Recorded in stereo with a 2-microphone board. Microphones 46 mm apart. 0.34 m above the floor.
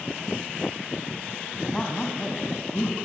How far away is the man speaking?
About 2.5 m.